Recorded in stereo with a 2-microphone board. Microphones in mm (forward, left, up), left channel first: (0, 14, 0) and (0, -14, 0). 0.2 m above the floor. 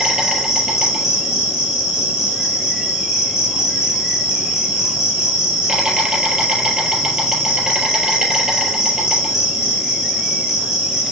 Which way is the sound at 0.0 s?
20° right (ahead or behind).